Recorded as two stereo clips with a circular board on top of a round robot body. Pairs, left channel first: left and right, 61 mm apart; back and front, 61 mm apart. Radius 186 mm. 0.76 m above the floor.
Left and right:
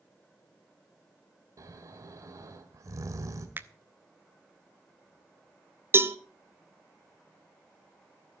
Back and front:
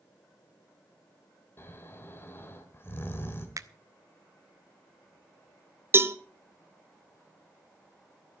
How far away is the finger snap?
About 0.8 m.